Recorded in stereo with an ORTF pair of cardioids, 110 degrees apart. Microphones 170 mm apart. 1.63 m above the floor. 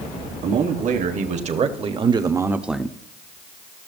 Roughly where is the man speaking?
Ahead right.